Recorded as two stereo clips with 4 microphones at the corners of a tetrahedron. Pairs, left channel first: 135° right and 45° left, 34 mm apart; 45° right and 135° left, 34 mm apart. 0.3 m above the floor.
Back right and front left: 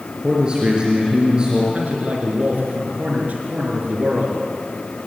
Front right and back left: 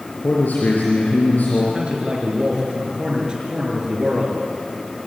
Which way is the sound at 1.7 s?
80° left.